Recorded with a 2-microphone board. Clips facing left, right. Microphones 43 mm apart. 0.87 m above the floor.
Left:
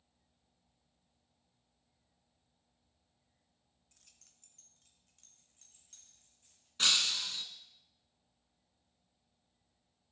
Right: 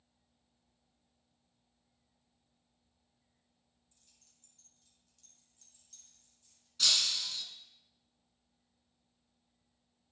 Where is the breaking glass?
40° left (ahead or behind), 1.0 m.